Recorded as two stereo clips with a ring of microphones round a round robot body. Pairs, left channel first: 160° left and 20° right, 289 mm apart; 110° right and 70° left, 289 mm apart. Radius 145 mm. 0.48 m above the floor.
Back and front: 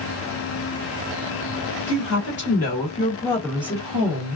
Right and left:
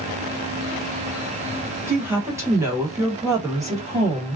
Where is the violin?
No violin in this recording.